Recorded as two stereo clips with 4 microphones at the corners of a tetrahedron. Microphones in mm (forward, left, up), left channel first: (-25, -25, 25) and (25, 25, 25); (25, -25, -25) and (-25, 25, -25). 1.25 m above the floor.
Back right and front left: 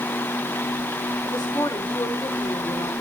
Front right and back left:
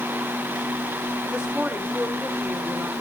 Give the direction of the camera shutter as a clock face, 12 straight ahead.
I don't hear a camera shutter.